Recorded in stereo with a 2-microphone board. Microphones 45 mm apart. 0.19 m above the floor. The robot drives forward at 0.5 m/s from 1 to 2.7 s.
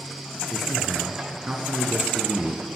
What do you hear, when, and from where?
0.5 s a man speaking: 15° right (ahead or behind), 3 m; by 2.7 s 20° right (ahead or behind), 2 m